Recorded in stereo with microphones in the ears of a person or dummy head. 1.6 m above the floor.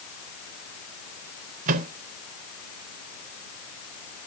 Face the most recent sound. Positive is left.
turn(degrees=-45)  # may be behind; listen again after turning